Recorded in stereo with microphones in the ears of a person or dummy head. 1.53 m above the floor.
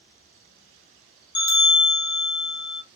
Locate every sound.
1.4 s a bell: 20° left (ahead or behind), 0.8 m